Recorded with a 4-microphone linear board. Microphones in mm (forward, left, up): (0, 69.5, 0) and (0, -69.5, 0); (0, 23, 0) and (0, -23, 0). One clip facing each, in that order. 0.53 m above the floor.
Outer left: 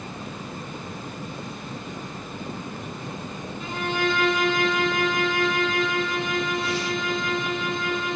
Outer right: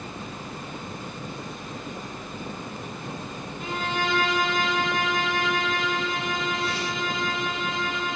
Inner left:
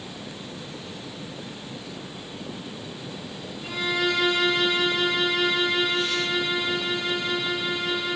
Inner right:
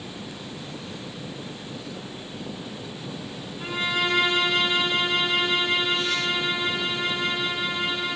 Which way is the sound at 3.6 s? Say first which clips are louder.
Outer left 3 dB, even; 60° right (ahead or behind).